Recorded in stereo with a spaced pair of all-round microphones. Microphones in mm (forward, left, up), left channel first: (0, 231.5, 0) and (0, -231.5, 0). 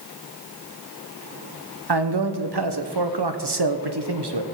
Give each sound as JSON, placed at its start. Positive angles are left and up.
{"t": 1.9, "sound": "a man speaking", "side_deg": -65, "distance_m": 0.9}